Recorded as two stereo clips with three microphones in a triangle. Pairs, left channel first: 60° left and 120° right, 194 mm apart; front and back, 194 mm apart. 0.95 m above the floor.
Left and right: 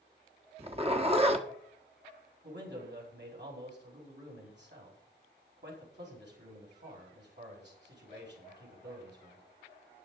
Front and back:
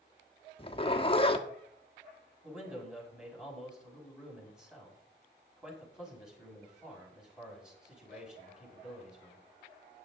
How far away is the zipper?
About 1.3 m.